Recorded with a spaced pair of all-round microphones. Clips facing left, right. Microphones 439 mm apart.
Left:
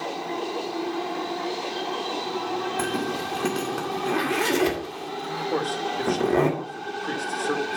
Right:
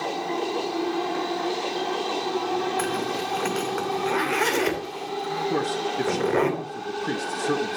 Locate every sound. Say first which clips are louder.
2.8 s a zipper: even; 55° left (ahead or behind), 2.5 m
5.5 s a man speaking: even; 40° right (ahead or behind), 1.3 m